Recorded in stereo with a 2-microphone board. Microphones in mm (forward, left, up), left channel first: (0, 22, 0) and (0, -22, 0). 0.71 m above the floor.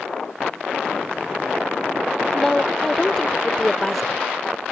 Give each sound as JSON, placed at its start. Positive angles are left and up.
{"t": 2.3, "sound": "a woman speaking", "side_deg": 5}